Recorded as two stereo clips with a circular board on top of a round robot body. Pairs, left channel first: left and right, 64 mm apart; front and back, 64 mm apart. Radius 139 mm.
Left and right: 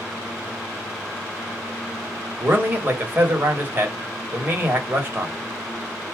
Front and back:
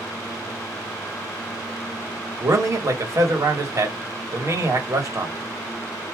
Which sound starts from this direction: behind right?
A man speaking, at 2.4 s.